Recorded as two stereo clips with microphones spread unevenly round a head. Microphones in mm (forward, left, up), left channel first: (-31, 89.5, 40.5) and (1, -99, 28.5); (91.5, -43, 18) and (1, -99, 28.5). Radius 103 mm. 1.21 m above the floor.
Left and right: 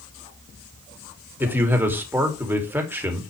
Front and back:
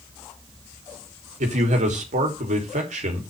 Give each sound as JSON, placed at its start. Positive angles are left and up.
{"t": 1.4, "sound": "a man speaking", "azimuth_deg": -160, "distance_m": 3.5}